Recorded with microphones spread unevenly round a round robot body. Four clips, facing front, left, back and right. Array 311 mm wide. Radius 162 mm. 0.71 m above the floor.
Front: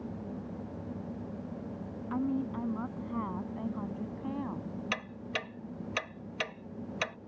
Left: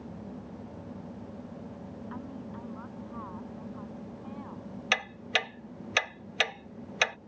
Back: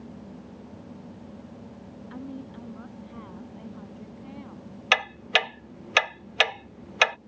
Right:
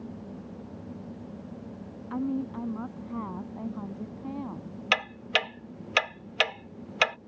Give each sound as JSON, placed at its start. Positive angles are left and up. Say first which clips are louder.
{"t": 2.1, "sound": "a woman speaking", "louder": "right 14 dB, front 7 dB", "azimuth_deg": -60}
{"t": 4.9, "sound": "ticking", "louder": "right 3 dB, back 16 dB", "azimuth_deg": 175}